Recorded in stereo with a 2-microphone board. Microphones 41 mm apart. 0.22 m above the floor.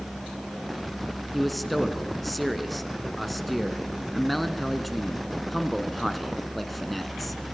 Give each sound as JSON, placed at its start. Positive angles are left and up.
{"t": 1.3, "sound": "a man speaking", "side_deg": 0, "distance_m": 3.0}